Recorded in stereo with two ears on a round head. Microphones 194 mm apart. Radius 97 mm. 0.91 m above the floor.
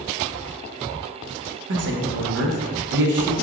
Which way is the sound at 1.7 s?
55° right (ahead or behind).